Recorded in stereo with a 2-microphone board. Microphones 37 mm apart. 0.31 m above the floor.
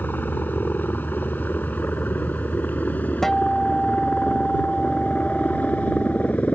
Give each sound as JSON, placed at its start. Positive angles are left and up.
{"t": 0.0, "sound": "a helicopter", "side_deg": 55}
{"t": 3.2, "sound": "a guitar", "side_deg": 10}